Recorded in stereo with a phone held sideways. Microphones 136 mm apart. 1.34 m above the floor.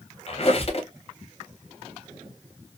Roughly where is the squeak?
Left.